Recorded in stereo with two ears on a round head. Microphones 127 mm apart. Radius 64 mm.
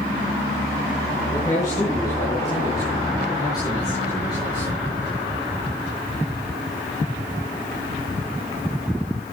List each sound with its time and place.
1.3 s a man speaking: 20° left (ahead or behind), 8.5 m; by 4.8 s 30° left (ahead or behind), 10 m